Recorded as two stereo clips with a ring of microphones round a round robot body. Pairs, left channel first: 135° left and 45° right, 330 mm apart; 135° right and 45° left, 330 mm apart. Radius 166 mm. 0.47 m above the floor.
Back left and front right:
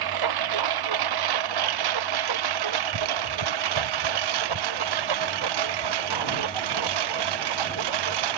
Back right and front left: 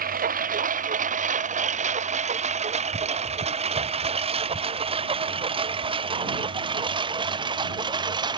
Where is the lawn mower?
20° right; by 8.4 s 35° right.